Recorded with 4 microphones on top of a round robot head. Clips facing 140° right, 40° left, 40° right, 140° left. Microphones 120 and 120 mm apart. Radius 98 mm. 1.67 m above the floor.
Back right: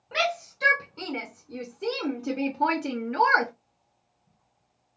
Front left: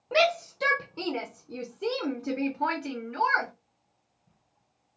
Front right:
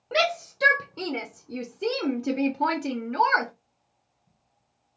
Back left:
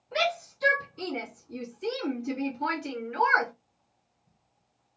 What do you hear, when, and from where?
0.1 s a shout: 10° right, 1.4 m; by 3.5 s 110° right, 0.9 m